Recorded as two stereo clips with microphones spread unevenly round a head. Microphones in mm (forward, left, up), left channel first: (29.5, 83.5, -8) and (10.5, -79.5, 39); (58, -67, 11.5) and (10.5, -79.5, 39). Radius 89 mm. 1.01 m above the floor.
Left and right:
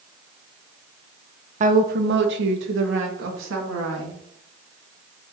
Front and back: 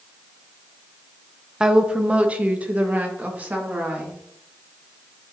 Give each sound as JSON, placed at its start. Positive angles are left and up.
{"t": 1.6, "sound": "a woman speaking", "azimuth_deg": -55, "distance_m": 0.7}